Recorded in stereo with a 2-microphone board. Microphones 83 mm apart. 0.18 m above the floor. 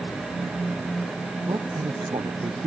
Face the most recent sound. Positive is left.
turn(degrees=-80)